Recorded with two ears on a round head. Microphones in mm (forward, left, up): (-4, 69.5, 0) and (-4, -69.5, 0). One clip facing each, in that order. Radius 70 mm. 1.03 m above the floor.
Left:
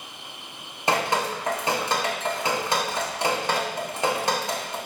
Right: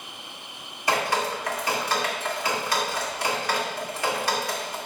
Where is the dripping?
20° left (ahead or behind), 1.7 m.